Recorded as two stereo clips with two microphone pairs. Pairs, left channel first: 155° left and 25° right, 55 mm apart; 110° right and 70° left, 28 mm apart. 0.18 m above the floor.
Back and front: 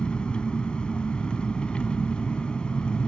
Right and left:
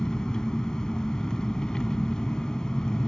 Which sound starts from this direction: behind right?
An engine running, at 0.0 s.